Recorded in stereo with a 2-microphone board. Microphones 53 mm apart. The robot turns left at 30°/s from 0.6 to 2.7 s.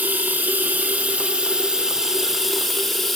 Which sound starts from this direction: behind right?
Running water, at 0.0 s.